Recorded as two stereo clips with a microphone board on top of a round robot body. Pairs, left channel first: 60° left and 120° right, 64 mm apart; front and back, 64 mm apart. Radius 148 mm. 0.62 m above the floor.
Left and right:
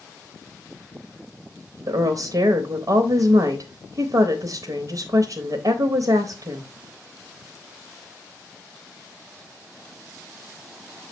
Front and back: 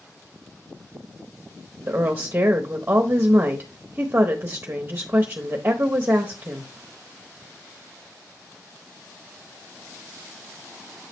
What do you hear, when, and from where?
1.9 s a woman speaking: 120° right, 1.0 m